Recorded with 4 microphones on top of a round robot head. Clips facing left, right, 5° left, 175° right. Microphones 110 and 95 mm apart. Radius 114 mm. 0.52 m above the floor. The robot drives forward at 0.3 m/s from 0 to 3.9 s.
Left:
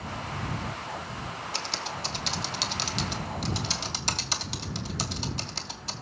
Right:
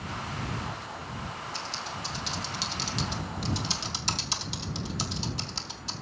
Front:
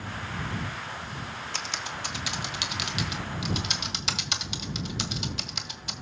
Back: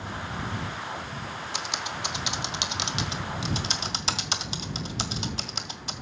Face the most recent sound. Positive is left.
turn(degrees=130)